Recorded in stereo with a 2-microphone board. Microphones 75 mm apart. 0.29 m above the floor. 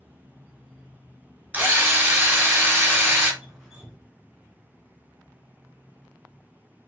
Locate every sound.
1.5 s a drill: 25° right (ahead or behind), 0.9 m
3.4 s dripping: 10° left (ahead or behind), 1.7 m